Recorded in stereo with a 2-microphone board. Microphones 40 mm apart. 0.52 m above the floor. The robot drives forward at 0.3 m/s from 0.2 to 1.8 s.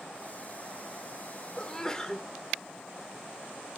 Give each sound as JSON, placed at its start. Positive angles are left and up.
{"t": 1.6, "sound": "a sneeze", "side_deg": 20, "distance_m": 1.2}